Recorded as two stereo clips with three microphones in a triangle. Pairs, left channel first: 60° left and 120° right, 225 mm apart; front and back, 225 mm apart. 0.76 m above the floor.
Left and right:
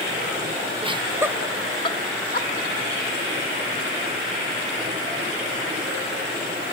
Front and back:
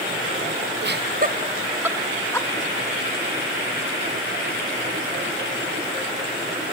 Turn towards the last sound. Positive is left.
turn(degrees=70)